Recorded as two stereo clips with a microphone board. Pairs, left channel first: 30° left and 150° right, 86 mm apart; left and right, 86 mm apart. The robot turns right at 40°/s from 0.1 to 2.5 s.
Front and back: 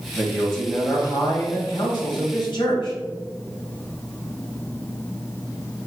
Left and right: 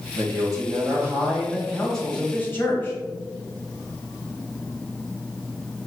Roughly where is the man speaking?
Ahead right.